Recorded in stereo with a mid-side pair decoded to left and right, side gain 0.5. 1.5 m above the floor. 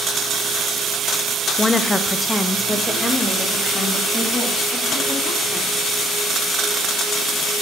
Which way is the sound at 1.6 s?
20° left.